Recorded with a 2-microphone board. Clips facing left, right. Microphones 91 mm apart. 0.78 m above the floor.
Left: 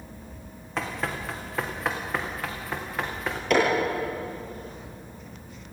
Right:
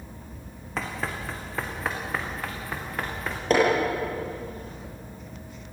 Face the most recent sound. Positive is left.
turn(degrees=-35)  # may be behind; listen again after turning